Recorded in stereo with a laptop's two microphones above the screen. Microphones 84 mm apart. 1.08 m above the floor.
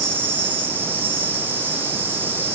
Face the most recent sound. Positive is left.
turn(degrees=-25)  # may be behind; listen again after turning